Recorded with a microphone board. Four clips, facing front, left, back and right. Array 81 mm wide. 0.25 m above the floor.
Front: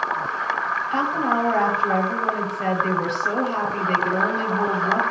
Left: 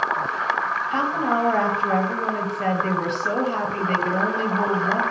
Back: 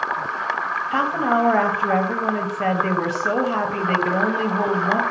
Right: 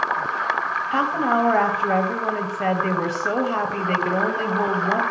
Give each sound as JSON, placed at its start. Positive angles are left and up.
{"t": 0.9, "sound": "a woman speaking", "azimuth_deg": -140, "distance_m": 1.1}